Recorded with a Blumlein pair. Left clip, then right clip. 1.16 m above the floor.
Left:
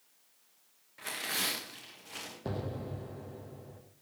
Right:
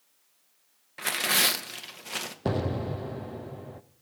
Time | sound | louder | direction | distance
1.0 | tearing paper | right 10 dB | 60° right | 1.3 m
2.5 | an explosion | right 9 dB | 30° right | 0.7 m